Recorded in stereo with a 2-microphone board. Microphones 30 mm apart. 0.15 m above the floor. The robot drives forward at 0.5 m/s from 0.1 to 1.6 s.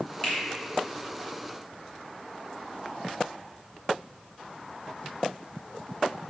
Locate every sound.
0.2 s a finger snap: 35° left (ahead or behind), 1.8 m